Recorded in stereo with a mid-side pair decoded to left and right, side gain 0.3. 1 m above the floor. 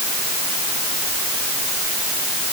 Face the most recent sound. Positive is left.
No sound to turn to.